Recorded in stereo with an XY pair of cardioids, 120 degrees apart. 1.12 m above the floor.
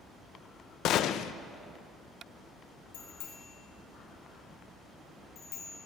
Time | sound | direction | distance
0.8 | a gunshot | 70° left | 0.5 m
2.9 | a bicycle bell | 70° left | 3 m